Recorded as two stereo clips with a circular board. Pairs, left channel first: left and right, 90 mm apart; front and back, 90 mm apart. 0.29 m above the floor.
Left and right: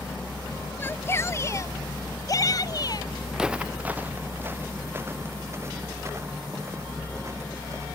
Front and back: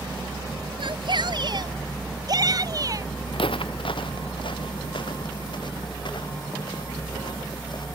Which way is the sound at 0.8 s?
155° left.